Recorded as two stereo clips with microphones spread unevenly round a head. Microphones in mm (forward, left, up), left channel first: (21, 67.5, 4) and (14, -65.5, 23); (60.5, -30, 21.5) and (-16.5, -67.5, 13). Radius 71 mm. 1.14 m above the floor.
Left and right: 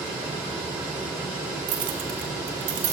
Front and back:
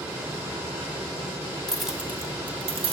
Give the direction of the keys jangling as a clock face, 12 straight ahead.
2 o'clock.